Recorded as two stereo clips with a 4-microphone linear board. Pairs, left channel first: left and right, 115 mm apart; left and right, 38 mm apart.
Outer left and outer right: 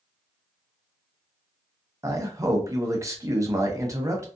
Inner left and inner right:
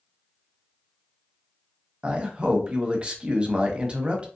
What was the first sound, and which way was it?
A man speaking, 25° right (ahead or behind).